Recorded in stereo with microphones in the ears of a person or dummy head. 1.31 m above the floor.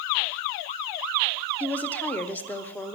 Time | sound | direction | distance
1.6 | a woman speaking | 10° left (ahead or behind) | 0.8 m